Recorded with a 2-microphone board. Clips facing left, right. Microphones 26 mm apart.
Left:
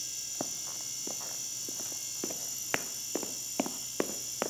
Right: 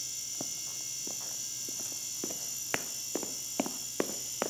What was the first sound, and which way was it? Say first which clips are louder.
Running footsteps: left 1 dB; 25° left (ahead or behind).